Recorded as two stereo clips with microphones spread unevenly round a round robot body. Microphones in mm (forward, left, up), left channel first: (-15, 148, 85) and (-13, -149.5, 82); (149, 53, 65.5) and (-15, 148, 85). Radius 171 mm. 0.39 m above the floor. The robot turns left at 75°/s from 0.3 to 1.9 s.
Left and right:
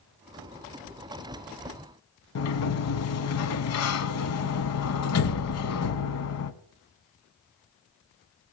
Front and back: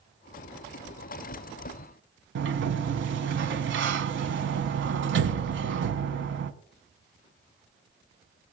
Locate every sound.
2.4 s a sliding door: 130° left, 0.7 m